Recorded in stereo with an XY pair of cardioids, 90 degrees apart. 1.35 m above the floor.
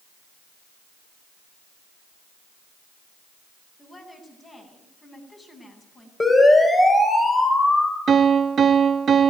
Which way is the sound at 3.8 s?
25° left.